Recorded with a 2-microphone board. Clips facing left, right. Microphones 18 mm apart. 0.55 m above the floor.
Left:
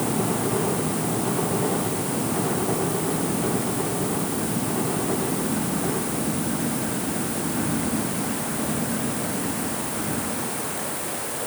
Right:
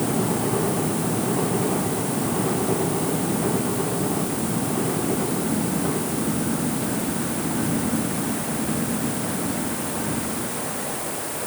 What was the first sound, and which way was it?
Only background noise.